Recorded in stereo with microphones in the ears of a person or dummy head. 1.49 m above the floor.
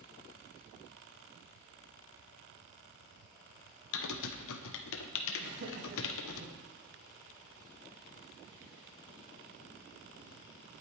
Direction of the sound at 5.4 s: 50° right (ahead or behind).